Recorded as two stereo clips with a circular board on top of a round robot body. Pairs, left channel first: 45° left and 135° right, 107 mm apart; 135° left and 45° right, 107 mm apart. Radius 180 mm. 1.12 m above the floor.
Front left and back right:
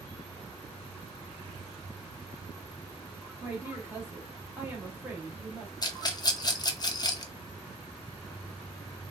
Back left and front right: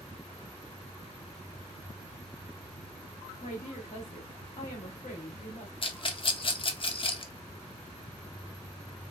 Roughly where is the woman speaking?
Behind left.